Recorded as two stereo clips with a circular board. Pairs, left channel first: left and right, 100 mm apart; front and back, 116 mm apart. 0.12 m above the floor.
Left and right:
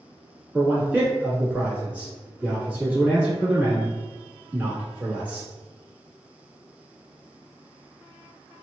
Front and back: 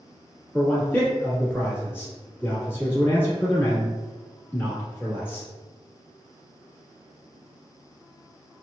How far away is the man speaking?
About 1.3 m.